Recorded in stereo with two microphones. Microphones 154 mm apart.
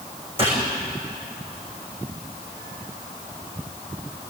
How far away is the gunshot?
About 5.5 m.